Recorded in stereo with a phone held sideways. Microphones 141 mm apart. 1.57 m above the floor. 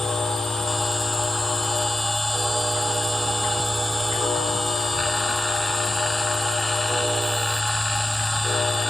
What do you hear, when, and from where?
0.0 s a machine running: 5° left (ahead or behind)